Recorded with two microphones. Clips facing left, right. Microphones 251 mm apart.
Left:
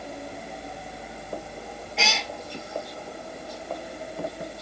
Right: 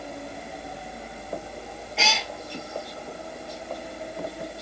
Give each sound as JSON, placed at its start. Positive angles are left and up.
{"t": 2.0, "sound": "a cat meowing", "side_deg": 0, "distance_m": 0.8}